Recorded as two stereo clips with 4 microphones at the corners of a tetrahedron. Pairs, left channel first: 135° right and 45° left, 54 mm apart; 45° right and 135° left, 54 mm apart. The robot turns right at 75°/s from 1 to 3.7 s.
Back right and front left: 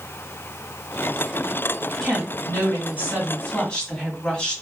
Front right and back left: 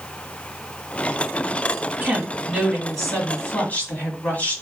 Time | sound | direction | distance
2.0 | a woman speaking | 170° left | 1.7 m